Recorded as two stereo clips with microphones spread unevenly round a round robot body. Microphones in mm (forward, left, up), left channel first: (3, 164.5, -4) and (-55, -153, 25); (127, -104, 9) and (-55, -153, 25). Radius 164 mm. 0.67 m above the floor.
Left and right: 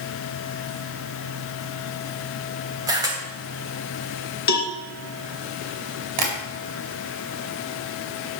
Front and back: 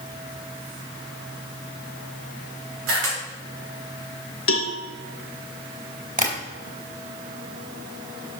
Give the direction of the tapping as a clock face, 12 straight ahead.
4 o'clock.